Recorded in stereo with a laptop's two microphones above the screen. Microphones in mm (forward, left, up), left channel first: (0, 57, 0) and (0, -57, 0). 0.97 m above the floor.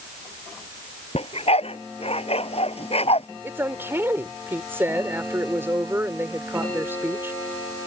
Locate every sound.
1.1 s a dog barking: 60° left (ahead or behind)
3.4 s a woman speaking: 20° right (ahead or behind)